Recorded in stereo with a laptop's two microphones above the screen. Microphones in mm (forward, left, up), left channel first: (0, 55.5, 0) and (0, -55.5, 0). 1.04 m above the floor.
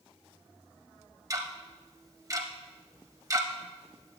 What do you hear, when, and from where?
1.3 s ticking: 30° right (ahead or behind), 0.5 m